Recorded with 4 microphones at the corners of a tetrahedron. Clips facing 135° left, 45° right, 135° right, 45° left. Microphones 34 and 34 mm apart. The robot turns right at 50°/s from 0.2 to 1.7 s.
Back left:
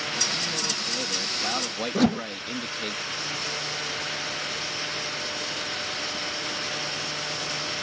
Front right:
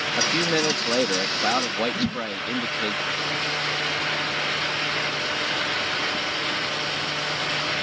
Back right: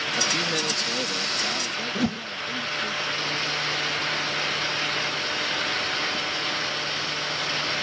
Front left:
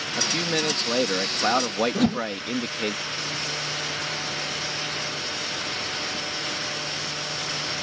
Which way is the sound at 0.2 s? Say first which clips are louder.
Front right 10 dB, front left 2 dB; 45° right.